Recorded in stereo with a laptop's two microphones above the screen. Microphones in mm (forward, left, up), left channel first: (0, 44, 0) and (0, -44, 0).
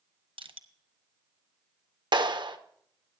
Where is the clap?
55° right (ahead or behind), 1.0 m.